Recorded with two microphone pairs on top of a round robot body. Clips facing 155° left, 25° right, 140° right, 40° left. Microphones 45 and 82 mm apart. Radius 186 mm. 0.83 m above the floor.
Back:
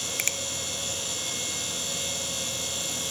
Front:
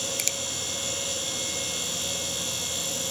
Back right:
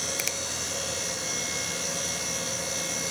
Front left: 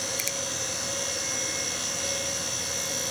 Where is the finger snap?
155° right, 1.4 m.